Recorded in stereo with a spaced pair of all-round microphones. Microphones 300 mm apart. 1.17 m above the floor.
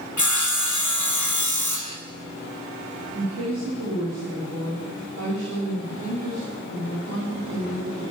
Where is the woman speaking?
65° right (ahead or behind), 6.5 m.